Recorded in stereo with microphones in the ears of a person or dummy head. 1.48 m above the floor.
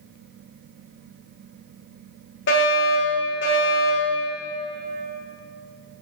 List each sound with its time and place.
2.5 s a fire alarm: 60° left (ahead or behind), 3.5 m